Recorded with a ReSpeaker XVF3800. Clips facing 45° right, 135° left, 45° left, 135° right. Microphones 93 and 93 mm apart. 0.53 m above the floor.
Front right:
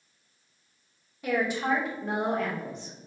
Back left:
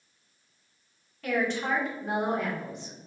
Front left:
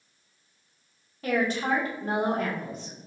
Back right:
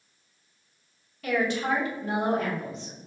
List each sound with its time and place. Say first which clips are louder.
1.2 s a woman speaking: front right 1 dB, even; 20° left, 1.2 m; by 3.1 s 70° left, 1.8 m